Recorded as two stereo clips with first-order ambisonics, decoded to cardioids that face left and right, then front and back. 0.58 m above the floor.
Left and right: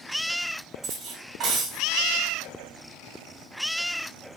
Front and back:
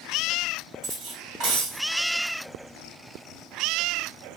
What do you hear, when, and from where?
0.8 s cutlery clinking: 140° right, 1.5 m